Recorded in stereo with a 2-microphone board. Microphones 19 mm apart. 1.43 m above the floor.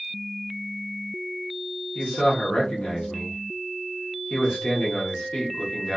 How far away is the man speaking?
About 1.1 m.